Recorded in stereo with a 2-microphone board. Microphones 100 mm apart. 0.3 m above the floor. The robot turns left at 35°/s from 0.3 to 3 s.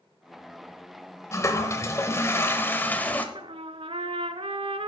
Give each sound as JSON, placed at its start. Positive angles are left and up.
{"t": 1.3, "sound": "a toilet flushing", "side_deg": 30, "distance_m": 0.8}
{"t": 3.4, "sound": "a trumpet", "side_deg": -65, "distance_m": 0.5}